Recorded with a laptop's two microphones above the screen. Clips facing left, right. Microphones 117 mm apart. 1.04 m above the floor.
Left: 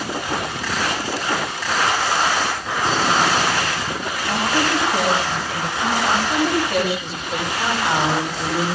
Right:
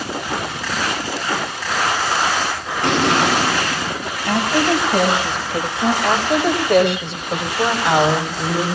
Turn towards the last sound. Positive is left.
turn(degrees=-70)  # may be behind; listen again after turning